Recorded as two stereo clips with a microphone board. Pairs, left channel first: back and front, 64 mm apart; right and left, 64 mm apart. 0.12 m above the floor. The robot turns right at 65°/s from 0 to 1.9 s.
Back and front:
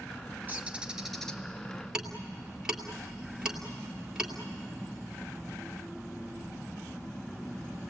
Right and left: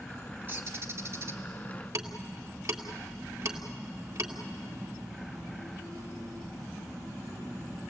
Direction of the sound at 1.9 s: 80° left.